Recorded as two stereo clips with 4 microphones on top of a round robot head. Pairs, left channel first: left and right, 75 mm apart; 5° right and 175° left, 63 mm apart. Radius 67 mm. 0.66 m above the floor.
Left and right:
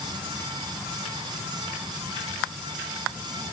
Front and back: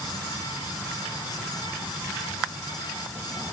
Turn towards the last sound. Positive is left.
No sound to turn to.